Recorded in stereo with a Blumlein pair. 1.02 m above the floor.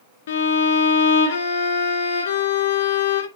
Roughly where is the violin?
Ahead left.